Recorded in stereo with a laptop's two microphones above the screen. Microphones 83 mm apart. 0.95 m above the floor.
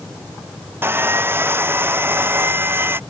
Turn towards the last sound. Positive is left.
turn(degrees=-25)  # may be behind; listen again after turning